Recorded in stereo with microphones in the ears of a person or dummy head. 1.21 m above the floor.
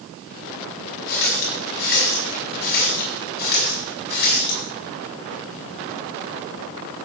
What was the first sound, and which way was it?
A running tap, 55° left (ahead or behind).